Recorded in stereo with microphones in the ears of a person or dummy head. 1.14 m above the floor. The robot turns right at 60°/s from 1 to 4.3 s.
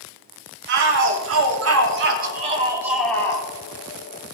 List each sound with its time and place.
0.7 s a shout: 120° right, 3 m; by 3.5 s 25° left, 3 m